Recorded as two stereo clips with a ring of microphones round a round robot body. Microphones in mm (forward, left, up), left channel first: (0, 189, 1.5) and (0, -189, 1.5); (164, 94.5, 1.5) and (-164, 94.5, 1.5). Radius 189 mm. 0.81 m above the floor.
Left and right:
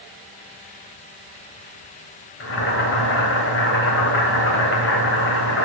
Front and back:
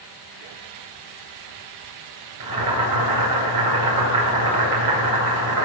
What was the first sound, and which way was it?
Boiling, 150° left.